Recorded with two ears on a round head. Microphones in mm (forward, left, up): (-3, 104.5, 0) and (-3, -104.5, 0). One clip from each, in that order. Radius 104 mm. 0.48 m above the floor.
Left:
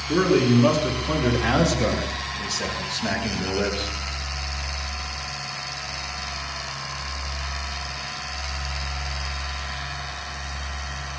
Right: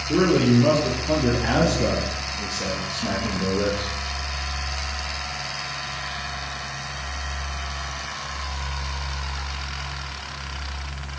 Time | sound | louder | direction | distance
0.1 | a man speaking | even | 65° left (ahead or behind) | 6.5 m